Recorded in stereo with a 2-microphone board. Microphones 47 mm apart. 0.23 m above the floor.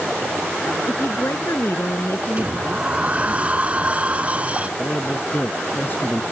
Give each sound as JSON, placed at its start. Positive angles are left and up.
{"t": 0.9, "sound": "a woman speaking", "side_deg": 65}
{"t": 2.4, "sound": "a sliding door", "side_deg": -30}
{"t": 4.8, "sound": "a man speaking", "side_deg": 40}